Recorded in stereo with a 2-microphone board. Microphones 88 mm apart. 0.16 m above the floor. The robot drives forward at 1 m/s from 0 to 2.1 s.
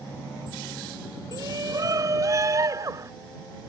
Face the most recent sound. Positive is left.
turn(degrees=-40)  # may be behind; listen again after turning